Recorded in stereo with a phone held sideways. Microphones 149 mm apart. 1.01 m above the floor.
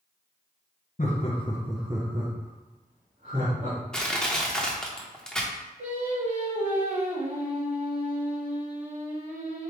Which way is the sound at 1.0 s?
55° left (ahead or behind).